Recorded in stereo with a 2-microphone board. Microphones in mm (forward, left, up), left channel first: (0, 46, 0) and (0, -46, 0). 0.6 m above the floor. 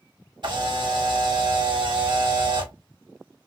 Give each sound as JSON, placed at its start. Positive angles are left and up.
{"t": 0.4, "sound": "a camera shutter", "side_deg": -60, "distance_m": 1.1}